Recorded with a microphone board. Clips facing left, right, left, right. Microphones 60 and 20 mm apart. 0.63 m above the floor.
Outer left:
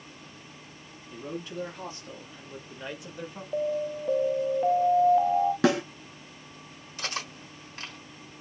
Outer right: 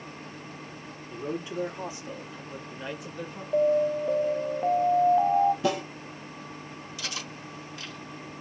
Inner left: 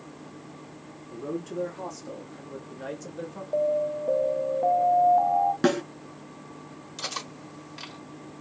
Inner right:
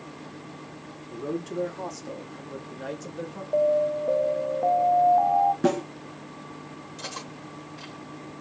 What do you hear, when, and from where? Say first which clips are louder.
1.1 s a man speaking: outer right 4 dB, inner right 2 dB; 20° right (ahead or behind), 1.6 m; by 3.4 s 5° left (ahead or behind), 1.1 m
3.5 s an alarm: outer right 6 dB, inner right 3 dB; 5° right (ahead or behind), 0.7 m
5.6 s a snare drum: outer left 4 dB, even; 85° left, 2 m
7.0 s cutlery clinking: outer left 4 dB, inner left 4 dB; 45° left (ahead or behind), 2.5 m